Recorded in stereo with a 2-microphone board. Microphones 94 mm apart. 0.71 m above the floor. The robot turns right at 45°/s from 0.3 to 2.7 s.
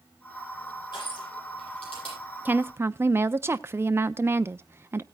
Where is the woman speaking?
20° right (ahead or behind), 0.6 m; by 5.0 s 25° right (ahead or behind), 0.6 m.